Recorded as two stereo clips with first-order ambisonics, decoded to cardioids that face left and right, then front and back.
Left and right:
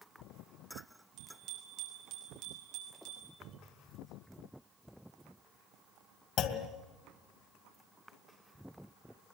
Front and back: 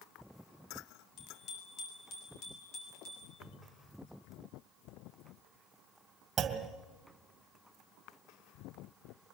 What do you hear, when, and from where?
1.2 s a bicycle bell: 50° right, 5 m; by 3.3 s 60° right, 7.5 m
3.4 s a cupboard door: 20° right, 3.5 m
6.4 s a clunk: 125° left, 2 m